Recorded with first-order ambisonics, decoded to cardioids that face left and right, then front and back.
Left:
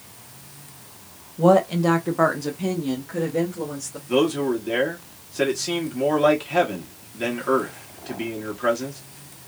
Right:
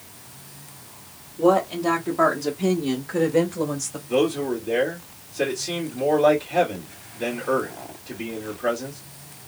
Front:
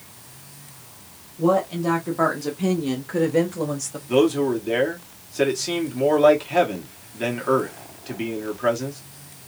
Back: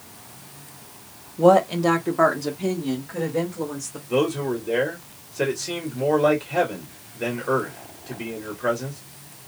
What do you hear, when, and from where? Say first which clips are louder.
1.4 s a woman speaking: left 2 dB, back 5 dB; 150° left, 0.8 m; by 4.0 s 25° right, 1.0 m
4.1 s a man speaking: left 1 dB, front 4 dB; 40° left, 1.2 m